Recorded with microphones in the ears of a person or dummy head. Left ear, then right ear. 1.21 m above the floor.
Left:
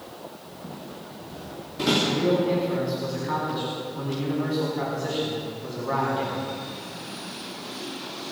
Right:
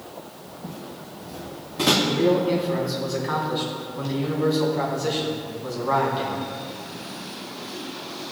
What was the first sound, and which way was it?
Footsteps, 20° right (ahead or behind).